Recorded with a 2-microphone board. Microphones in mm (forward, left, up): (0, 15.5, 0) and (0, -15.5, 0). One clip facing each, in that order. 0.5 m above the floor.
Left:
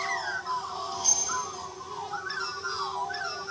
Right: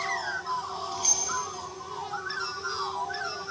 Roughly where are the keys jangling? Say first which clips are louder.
Right 1 dB; right.